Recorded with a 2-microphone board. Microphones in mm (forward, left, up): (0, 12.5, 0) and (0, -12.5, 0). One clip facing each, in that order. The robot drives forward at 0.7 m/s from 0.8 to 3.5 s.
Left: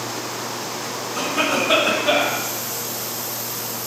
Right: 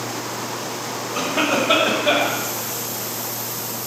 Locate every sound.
1.1 s a cough: 25° right (ahead or behind), 1.7 m; by 2.4 s 15° right (ahead or behind), 2.5 m